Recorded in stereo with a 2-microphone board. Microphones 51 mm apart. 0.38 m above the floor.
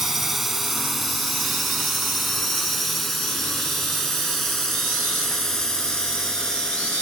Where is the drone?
5° right (ahead or behind); by 7.0 s 10° left (ahead or behind).